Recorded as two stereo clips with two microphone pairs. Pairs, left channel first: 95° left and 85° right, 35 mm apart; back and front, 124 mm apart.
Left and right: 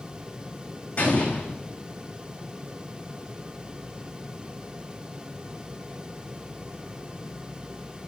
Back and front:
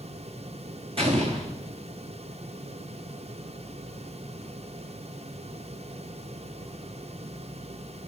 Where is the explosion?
40° left, 2 m.